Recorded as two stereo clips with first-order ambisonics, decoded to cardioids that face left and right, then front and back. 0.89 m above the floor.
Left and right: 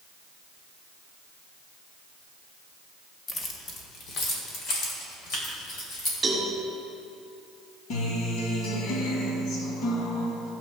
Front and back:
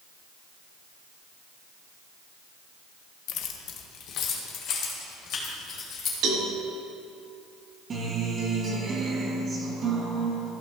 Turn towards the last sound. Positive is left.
turn(degrees=115)